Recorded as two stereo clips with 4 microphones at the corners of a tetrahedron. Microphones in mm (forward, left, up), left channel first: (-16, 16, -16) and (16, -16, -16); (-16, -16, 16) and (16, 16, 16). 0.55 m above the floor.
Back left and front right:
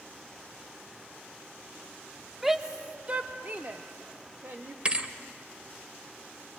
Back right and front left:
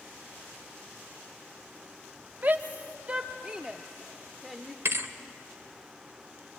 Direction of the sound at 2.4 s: 35° left.